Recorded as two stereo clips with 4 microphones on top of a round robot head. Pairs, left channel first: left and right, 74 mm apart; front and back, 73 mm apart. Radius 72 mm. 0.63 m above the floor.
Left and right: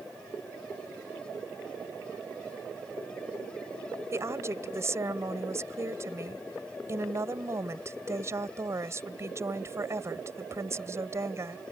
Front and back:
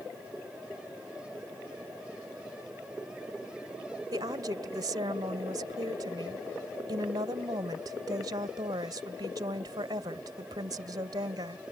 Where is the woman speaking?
140° right.